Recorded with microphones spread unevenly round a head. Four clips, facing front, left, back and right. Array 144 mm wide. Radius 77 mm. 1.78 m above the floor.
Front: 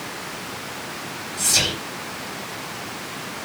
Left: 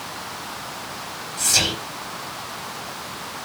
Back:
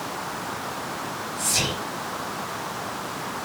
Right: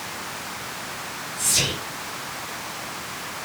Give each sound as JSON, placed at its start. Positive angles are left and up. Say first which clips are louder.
{"t": 1.4, "sound": "whispering", "louder": "left 3 dB, front 3 dB", "azimuth_deg": 35, "distance_m": 4.5}